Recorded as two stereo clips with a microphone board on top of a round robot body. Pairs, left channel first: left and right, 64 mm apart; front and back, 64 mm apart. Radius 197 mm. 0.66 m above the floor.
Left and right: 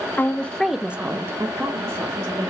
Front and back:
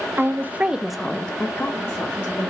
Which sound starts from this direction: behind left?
A woman speaking, at 0.2 s.